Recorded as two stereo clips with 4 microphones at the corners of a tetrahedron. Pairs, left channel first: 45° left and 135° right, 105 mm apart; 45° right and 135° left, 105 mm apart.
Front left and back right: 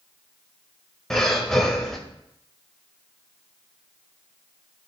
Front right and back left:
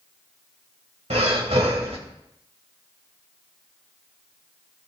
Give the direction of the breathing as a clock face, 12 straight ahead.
8 o'clock.